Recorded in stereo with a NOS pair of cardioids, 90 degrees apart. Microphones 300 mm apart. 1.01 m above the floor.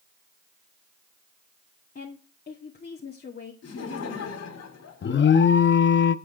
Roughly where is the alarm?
Ahead left.